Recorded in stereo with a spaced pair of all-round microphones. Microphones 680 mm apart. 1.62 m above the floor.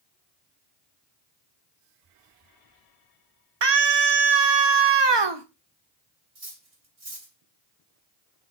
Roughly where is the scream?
Right.